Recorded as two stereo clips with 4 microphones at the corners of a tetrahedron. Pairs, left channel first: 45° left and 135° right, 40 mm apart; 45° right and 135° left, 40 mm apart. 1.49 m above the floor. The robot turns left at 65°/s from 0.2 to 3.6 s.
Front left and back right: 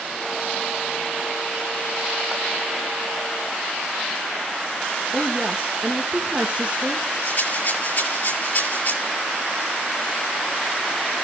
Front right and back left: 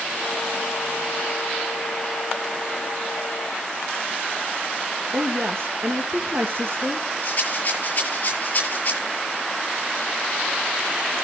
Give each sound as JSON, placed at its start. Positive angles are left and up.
{"t": 5.1, "sound": "a woman speaking", "azimuth_deg": 165, "distance_m": 1.8}
{"t": 7.2, "sound": "a rattle", "azimuth_deg": 10, "distance_m": 7.0}